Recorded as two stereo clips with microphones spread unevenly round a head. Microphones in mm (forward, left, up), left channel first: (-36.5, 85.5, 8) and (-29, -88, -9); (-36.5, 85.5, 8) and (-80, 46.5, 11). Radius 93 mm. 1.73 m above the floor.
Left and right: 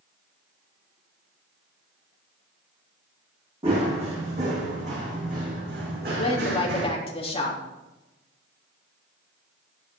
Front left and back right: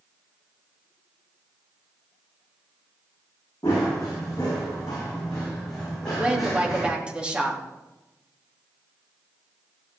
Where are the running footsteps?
25° right, 6.5 m; by 6.9 s 50° right, 6 m.